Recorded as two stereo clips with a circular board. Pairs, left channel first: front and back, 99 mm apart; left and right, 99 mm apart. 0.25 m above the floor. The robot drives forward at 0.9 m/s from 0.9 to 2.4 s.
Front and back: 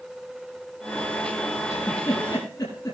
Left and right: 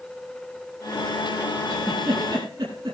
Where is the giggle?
55° right, 7 m; by 3.0 s 60° right, 7 m.